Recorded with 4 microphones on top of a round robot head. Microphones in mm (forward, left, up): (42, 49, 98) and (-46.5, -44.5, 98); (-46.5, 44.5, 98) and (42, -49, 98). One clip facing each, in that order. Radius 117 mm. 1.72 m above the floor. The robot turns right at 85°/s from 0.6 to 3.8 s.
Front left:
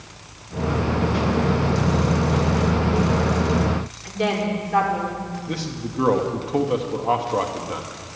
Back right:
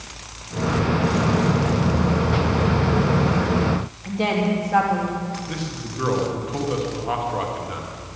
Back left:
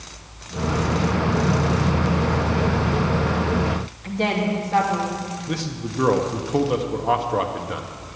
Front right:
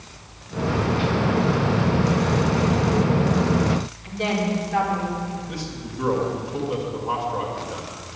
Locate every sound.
4.0 s a woman speaking: straight behind, 3 m
5.5 s a man speaking: 100° left, 1.1 m